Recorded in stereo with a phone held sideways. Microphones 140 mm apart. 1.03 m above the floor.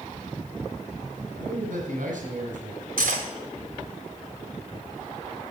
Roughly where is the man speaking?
Right.